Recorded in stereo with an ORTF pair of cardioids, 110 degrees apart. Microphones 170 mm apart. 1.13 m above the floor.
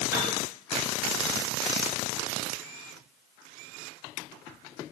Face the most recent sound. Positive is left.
turn(degrees=-15)